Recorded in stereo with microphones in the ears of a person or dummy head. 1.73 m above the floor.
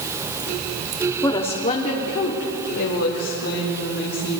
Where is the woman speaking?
10° left (ahead or behind), 0.8 m; by 4.4 s 75° left (ahead or behind), 3 m.